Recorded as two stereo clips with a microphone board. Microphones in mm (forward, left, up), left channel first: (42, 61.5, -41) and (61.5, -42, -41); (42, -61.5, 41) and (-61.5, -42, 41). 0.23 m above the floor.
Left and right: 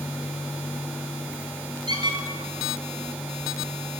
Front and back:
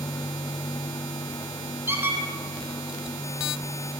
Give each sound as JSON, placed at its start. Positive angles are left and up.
{"t": 1.9, "sound": "a squeak", "azimuth_deg": -120, "distance_m": 0.9}